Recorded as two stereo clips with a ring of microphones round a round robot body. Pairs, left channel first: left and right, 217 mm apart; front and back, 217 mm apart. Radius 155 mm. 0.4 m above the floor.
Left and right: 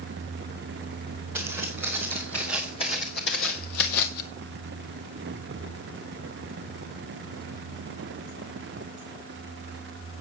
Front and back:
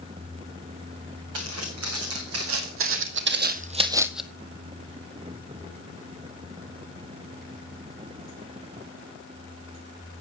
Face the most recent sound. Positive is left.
turn(degrees=90)